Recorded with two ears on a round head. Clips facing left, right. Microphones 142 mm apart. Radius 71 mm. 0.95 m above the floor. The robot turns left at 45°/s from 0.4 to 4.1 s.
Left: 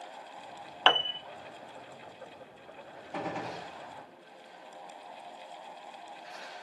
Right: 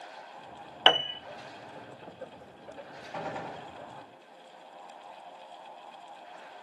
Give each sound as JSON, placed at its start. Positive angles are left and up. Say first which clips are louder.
{"t": 0.9, "sound": "a piano", "louder": "right 1 dB", "side_deg": -20, "distance_m": 0.5}
{"t": 3.1, "sound": "a gunshot", "louder": "left 1 dB", "side_deg": 10, "distance_m": 5.0}